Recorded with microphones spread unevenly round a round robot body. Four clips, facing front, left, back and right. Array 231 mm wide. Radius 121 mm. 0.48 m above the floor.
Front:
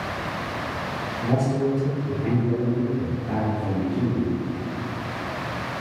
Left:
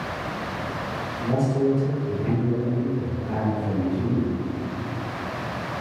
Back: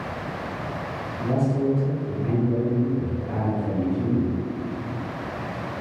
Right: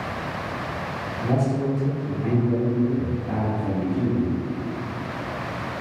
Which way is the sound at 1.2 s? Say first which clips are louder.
Left 1 dB, even; 50° right.